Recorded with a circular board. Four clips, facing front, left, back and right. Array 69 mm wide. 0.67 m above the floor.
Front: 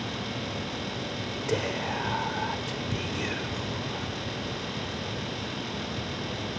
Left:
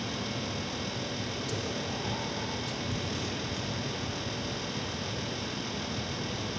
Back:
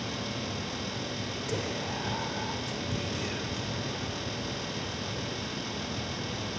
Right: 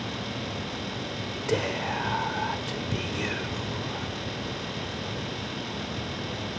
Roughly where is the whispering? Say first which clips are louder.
Right 11 dB, front 6 dB; ahead right.